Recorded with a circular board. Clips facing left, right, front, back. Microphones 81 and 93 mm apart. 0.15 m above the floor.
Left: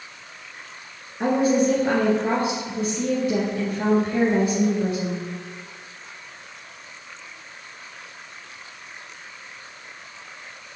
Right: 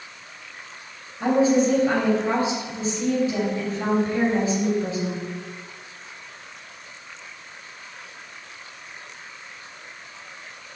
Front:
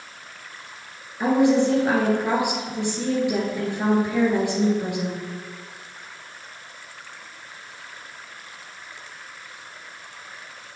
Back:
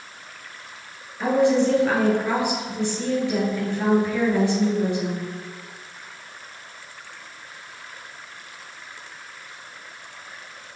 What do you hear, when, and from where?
1.2 s a woman speaking: 70° left, 3 m